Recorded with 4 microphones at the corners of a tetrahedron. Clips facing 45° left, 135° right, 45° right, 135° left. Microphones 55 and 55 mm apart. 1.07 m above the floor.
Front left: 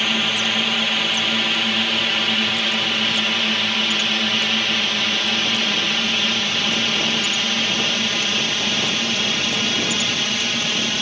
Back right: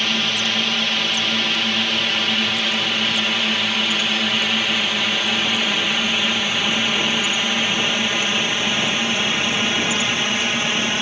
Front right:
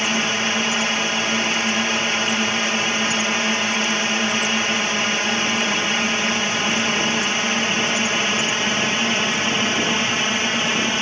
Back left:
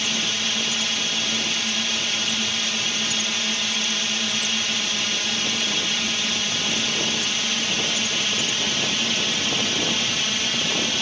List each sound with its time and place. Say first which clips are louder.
0.0 s a drone: front left 1 dB, front right 6 dB; 35° right; by 11.0 s 80° right